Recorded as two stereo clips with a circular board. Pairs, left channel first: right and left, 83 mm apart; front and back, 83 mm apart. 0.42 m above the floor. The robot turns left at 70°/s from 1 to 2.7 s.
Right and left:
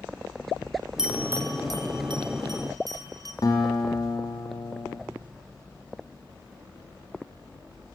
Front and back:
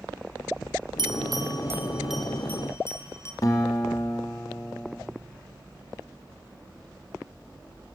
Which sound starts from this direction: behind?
A bell, at 1.0 s.